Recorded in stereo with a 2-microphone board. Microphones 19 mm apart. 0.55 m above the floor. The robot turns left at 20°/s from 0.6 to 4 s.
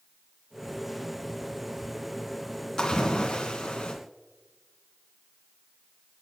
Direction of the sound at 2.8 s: 40° left (ahead or behind).